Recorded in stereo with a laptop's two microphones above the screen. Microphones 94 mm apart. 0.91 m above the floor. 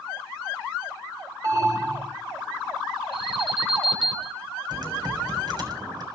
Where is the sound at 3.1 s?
70° right (ahead or behind), 6.5 m.